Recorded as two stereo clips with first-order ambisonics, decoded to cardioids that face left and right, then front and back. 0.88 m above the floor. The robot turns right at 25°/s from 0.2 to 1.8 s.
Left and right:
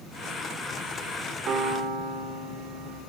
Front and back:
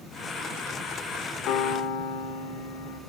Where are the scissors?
I don't hear scissors.